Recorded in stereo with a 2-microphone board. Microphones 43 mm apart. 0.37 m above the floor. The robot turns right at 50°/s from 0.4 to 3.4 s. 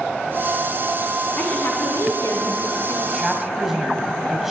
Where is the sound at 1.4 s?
35° left, 4 m; by 2.9 s 115° left, 4 m.